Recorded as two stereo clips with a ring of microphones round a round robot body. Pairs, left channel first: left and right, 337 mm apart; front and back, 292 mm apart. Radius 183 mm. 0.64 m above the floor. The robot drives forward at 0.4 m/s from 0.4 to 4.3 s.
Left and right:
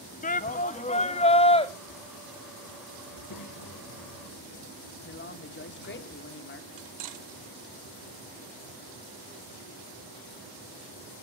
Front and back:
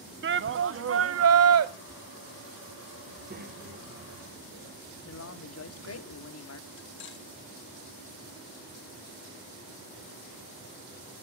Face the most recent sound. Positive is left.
turn(degrees=-55)